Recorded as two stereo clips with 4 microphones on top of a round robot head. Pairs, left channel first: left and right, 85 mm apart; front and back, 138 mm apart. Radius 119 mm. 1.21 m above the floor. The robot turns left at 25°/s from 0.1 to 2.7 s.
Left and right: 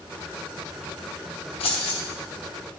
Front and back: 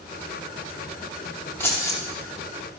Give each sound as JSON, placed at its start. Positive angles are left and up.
{"t": 1.6, "sound": "keys jangling", "azimuth_deg": 75, "distance_m": 1.1}